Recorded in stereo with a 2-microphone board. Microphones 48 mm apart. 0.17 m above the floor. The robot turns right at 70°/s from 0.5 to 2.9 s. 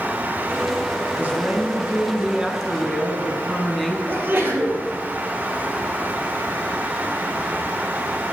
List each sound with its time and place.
1.1 s a woman speaking: 115° right, 1.7 m; by 4.0 s 10° left, 1.7 m
4.1 s a sneeze: 50° right (ahead or behind), 3.5 m